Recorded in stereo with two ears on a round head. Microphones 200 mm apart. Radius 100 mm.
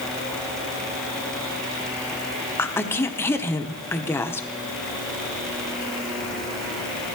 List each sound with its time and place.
2.6 s a woman speaking: 10° left (ahead or behind), 0.8 m